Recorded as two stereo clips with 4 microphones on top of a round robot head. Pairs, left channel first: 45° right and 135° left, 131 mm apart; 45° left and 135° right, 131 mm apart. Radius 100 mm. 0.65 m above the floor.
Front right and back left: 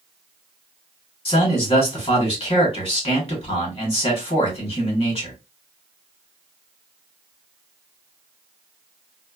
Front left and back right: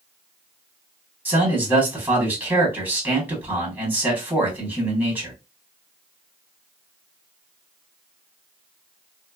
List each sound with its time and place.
1.2 s a man speaking: 70° right, 1.6 m